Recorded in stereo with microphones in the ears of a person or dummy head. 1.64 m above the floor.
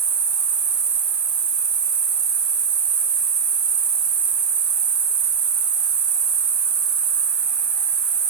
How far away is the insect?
About 2.5 m.